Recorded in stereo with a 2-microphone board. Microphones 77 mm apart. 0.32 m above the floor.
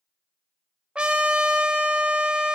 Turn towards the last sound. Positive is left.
turn(degrees=-15)  # may be behind; listen again after turning